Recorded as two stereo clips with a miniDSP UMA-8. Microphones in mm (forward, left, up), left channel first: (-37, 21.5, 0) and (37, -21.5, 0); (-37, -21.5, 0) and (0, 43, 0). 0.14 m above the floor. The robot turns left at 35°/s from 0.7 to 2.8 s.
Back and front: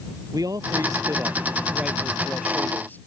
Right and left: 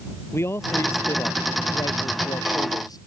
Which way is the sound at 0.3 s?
70° right.